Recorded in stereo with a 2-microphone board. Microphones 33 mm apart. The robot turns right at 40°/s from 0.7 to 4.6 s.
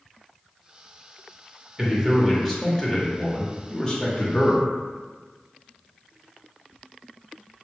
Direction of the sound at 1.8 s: 10° right (ahead or behind).